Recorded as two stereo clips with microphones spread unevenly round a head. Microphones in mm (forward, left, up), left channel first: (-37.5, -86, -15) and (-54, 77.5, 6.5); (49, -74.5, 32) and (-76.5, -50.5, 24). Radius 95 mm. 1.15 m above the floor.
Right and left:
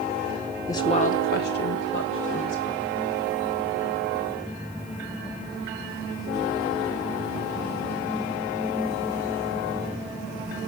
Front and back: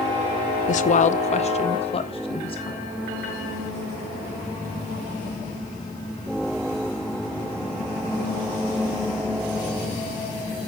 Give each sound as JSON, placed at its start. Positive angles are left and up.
{"t": 0.7, "sound": "a woman speaking", "azimuth_deg": -15, "distance_m": 0.6}